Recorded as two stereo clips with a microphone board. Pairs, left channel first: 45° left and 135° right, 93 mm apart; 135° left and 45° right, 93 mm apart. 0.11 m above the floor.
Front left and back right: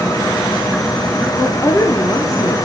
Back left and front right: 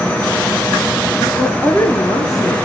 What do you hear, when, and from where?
1.3 s a woman speaking: 80° left, 1.3 m; by 2.6 s 90° left, 3 m